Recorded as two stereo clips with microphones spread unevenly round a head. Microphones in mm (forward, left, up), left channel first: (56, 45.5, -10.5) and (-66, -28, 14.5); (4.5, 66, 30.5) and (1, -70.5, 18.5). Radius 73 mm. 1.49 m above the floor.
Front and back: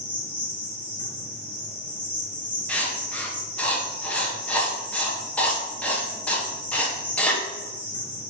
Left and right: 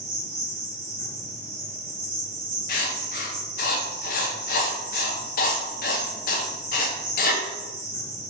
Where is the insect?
55° right, 1.1 m.